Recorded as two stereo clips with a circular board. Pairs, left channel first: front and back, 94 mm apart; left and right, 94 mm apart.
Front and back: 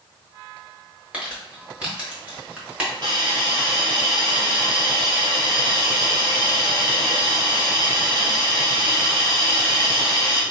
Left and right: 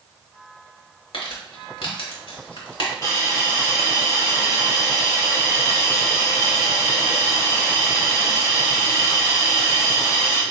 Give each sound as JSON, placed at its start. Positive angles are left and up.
{"t": 1.1, "sound": "crumpling", "azimuth_deg": 105, "distance_m": 1.1}
{"t": 3.0, "sound": "a hiss", "azimuth_deg": 140, "distance_m": 1.6}